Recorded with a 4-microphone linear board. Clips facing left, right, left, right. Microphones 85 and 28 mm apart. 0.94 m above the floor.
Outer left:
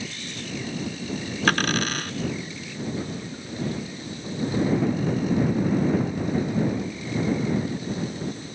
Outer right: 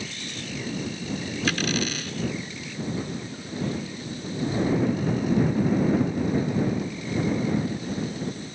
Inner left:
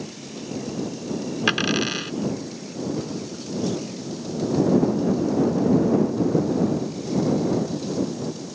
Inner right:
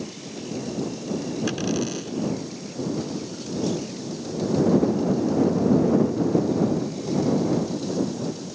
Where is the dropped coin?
55° left (ahead or behind).